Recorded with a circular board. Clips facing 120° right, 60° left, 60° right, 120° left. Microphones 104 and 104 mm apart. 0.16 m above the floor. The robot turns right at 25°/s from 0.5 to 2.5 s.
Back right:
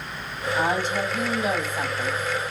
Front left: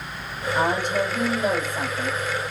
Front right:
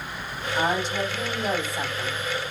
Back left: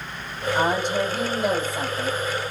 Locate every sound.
0.6 s a woman speaking: 80° left, 7 m; by 2.2 s 120° left, 7 m